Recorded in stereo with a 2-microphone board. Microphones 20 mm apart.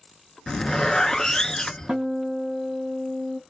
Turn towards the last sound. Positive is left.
turn(degrees=-75)  # may be behind; listen again after turning